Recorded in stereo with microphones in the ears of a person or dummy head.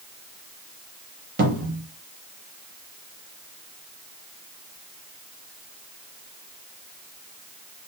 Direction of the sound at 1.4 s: 45° right (ahead or behind).